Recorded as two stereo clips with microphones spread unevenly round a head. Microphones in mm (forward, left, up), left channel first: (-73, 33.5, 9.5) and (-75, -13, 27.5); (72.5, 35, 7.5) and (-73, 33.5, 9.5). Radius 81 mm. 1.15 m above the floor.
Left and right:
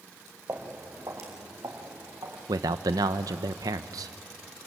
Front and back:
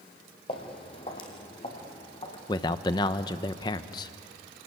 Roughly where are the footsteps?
Ahead right.